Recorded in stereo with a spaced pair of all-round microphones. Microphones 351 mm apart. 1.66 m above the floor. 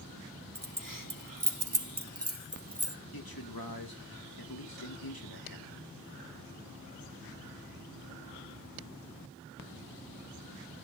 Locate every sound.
0.6 s keys jangling: 65° right (ahead or behind), 2 m; by 3.0 s 15° right (ahead or behind), 1.7 m
3.1 s a man speaking: 85° left, 3 m